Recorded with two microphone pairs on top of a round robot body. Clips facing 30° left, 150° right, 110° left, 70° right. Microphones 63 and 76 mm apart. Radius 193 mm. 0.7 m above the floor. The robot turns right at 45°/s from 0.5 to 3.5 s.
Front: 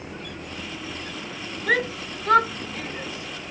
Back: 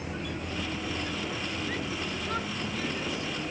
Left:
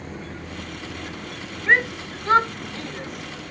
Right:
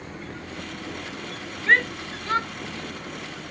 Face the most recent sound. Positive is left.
turn(degrees=110)